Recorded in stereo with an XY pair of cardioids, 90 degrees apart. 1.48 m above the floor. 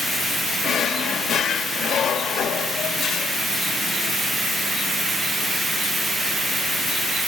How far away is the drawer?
About 1.8 m.